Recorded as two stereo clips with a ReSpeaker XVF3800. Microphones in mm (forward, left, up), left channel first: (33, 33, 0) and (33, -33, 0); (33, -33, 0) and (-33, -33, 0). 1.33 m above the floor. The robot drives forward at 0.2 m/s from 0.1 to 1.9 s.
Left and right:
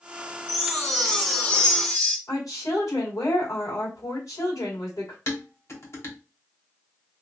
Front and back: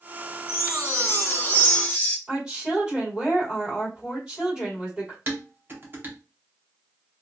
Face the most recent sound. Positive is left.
turn(degrees=130)